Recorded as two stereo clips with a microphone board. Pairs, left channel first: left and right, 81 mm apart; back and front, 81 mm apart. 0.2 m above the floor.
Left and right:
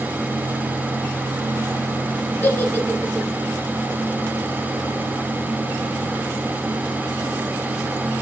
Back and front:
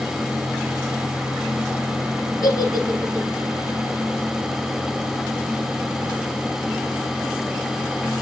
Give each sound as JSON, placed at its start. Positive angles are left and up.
{"t": 2.4, "sound": "a giggle", "azimuth_deg": 145, "distance_m": 1.4}